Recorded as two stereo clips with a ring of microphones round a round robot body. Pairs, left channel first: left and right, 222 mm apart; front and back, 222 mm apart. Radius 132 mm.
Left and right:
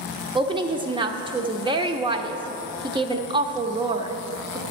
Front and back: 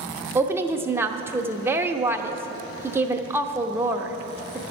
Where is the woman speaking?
115° right, 0.9 m.